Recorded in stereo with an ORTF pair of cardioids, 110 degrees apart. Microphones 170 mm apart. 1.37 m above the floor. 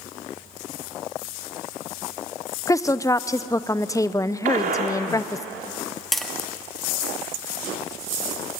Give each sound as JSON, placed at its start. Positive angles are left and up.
{"t": 2.7, "sound": "a woman speaking", "azimuth_deg": 20, "distance_m": 0.6}
{"t": 4.5, "sound": "a gunshot", "azimuth_deg": -50, "distance_m": 3.5}
{"t": 6.1, "sound": "tapping", "azimuth_deg": 0, "distance_m": 1.9}